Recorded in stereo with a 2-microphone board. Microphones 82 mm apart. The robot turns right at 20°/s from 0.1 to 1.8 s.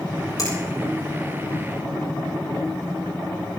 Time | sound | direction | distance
0.4 | a finger snap | 50° left (ahead or behind) | 6.5 m